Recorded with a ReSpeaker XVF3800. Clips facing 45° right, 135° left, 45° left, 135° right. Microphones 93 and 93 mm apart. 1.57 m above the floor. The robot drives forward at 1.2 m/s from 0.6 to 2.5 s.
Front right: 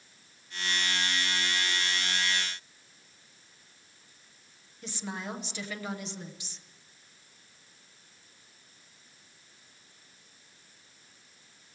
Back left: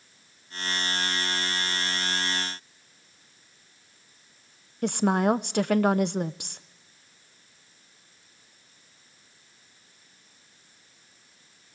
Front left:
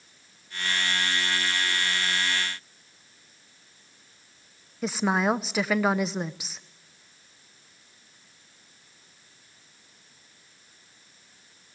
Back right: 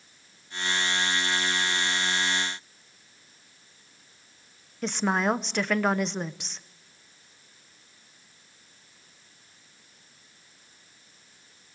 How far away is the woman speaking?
About 0.7 m.